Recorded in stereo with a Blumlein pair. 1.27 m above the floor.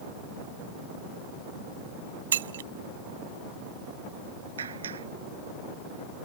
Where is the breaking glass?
60° right.